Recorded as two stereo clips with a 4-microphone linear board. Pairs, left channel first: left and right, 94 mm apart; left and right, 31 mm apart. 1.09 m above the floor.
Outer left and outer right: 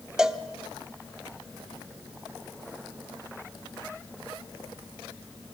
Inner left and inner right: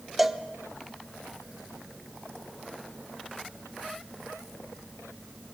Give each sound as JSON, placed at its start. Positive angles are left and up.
{"t": 0.2, "sound": "a cowbell", "side_deg": -5, "distance_m": 0.9}